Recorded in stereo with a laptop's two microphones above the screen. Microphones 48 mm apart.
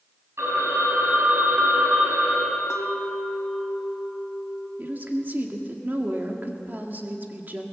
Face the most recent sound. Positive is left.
turn(degrees=-45)  # may be behind; listen again after turning